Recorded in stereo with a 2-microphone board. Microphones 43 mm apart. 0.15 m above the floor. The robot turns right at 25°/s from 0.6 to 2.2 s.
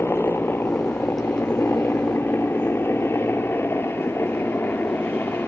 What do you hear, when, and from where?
0.0 s a helicopter: 65° left (ahead or behind); by 5.5 s 55° left (ahead or behind)